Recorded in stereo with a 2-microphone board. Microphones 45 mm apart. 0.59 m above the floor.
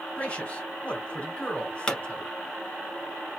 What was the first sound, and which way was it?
A man speaking, 30° left (ahead or behind).